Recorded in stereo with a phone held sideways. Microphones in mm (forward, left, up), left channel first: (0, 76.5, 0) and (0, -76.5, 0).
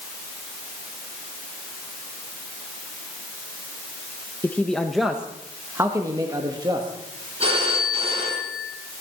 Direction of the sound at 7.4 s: 40° right (ahead or behind).